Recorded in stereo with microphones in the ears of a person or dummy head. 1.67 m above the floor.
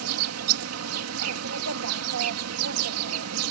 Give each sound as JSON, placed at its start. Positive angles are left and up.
{"t": 0.0, "sound": "an insect", "side_deg": -85}